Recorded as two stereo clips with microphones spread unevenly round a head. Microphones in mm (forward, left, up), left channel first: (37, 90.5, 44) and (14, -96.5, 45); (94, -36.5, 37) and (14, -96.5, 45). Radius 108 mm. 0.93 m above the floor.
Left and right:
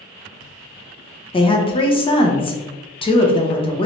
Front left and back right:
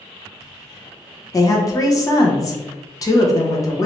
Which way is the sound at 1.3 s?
40° left.